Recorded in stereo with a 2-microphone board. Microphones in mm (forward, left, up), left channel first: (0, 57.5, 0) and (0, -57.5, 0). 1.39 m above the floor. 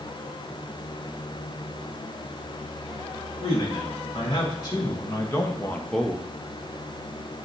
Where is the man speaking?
45° left (ahead or behind), 2.0 m; by 6.3 s 10° right (ahead or behind), 0.7 m.